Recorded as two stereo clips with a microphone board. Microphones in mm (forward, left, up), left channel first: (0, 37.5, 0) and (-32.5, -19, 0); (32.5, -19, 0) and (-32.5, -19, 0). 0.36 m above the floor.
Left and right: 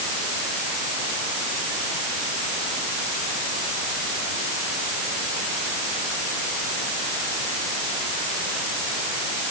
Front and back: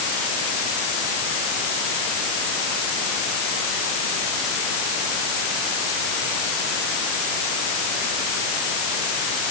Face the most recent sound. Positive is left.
No sound to turn to.